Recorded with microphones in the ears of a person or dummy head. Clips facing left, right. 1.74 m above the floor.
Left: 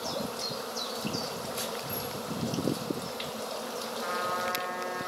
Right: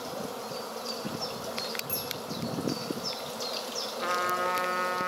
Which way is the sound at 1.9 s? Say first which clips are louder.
Left 1 dB; 25° right (ahead or behind).